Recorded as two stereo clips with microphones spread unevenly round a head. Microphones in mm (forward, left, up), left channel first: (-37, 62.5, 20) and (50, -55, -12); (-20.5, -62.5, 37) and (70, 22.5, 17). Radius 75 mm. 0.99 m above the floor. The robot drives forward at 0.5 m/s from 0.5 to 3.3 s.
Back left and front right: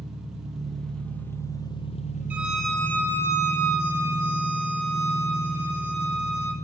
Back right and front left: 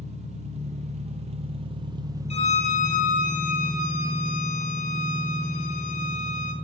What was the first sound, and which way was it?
An engine running, 30° left.